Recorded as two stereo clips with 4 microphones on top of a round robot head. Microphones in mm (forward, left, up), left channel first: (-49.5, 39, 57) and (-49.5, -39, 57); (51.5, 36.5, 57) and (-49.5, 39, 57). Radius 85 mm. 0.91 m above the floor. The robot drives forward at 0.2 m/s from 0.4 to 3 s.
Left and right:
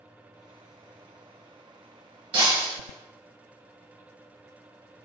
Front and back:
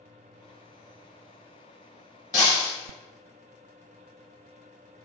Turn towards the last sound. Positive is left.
turn(degrees=-70)